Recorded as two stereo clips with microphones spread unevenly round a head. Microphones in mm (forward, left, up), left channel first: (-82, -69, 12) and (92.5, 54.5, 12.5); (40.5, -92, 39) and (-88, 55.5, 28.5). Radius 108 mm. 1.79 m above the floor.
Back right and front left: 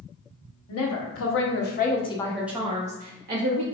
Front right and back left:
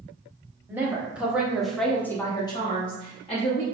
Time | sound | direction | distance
0.7 | a woman speaking | 150° right | 1.0 m